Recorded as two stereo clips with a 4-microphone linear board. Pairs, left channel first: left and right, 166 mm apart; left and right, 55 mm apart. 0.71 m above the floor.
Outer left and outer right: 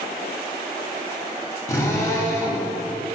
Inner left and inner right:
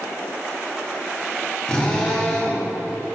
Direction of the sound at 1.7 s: 20° left (ahead or behind).